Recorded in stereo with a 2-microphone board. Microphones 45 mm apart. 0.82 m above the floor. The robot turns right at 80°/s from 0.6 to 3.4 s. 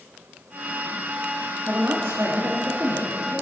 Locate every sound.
1.7 s a woman speaking: 140° right, 1.4 m; by 3.4 s straight ahead, 1.4 m